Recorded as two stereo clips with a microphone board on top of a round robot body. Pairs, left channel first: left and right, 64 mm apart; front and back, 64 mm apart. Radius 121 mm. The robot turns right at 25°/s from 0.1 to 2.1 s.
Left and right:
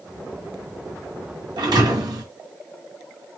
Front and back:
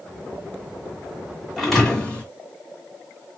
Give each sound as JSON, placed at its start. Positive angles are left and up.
{"t": 1.6, "sound": "a thud", "azimuth_deg": -90, "distance_m": 1.5}